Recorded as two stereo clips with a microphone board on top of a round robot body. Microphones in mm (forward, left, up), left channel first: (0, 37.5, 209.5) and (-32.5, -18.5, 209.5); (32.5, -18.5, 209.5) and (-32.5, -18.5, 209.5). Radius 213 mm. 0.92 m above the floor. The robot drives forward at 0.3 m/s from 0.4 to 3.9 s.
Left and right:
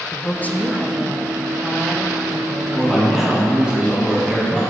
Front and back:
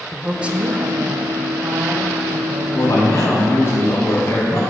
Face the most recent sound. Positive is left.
turn(degrees=-45)